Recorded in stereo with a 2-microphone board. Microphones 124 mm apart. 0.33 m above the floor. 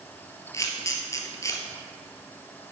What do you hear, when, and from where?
0.5 s a camera shutter: 25° left (ahead or behind), 1.3 m